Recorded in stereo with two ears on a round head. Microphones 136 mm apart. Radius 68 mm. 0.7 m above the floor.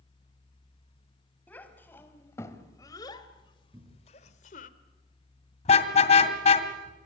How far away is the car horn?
About 2.5 m.